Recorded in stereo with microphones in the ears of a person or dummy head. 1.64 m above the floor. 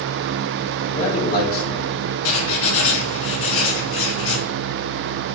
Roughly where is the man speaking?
Left.